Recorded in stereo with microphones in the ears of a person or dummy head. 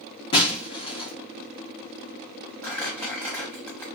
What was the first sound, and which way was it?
Breaking glass, 30° left (ahead or behind).